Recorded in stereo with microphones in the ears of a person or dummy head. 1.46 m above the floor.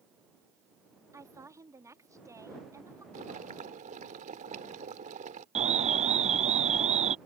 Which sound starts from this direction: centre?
A woman speaking, at 1.1 s.